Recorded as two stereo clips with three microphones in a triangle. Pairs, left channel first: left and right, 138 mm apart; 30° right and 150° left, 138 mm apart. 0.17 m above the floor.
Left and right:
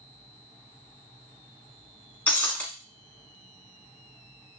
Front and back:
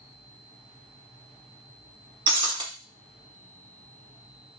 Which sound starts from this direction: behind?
Breaking glass, at 2.3 s.